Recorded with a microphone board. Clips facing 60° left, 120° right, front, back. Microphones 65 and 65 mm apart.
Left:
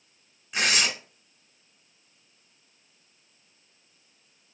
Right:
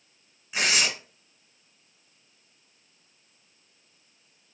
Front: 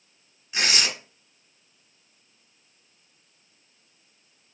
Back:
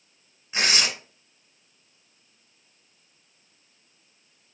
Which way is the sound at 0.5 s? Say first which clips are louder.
Even, back 1 dB; 155° left.